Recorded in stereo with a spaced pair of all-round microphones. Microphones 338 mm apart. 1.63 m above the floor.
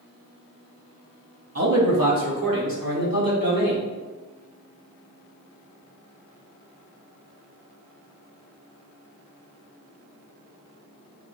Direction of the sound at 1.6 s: 45° right (ahead or behind).